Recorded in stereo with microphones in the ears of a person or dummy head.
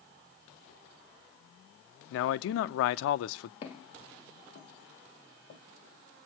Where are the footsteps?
35° left (ahead or behind), 1.8 m; by 5.6 s 55° left (ahead or behind), 2.5 m.